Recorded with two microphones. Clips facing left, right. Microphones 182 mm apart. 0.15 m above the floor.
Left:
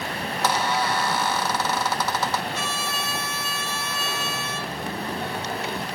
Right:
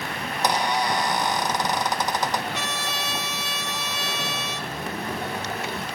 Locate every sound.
0.4 s a squeak: 15° right (ahead or behind), 0.6 m
2.5 s a trumpet: 70° right (ahead or behind), 2.5 m